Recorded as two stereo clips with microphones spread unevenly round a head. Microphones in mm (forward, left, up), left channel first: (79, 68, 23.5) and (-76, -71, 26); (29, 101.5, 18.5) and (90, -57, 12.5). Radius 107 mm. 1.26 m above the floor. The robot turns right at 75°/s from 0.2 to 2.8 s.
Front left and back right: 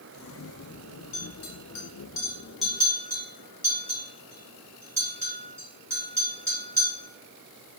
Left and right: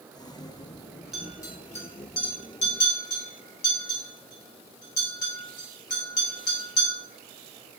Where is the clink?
20° left, 1.1 m; by 6.9 s 145° left, 1.1 m.